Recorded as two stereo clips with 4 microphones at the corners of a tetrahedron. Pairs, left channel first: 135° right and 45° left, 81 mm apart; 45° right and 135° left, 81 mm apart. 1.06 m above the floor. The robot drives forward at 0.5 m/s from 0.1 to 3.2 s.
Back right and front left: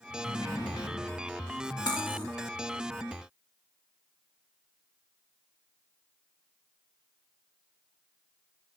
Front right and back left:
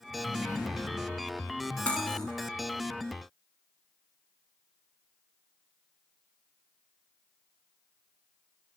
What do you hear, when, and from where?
0.2 s a sliding door: 135° right, 1.3 m; by 1.1 s 145° right, 1.6 m
1.9 s cutlery clinking: 120° right, 0.9 m; by 2.3 s 130° right, 1.0 m